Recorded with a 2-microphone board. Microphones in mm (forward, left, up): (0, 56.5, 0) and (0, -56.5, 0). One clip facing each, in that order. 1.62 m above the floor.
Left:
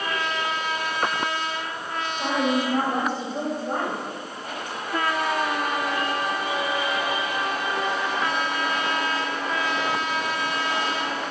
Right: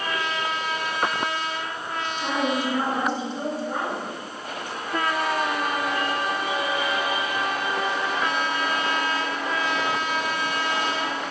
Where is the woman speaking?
45° left (ahead or behind), 9 m.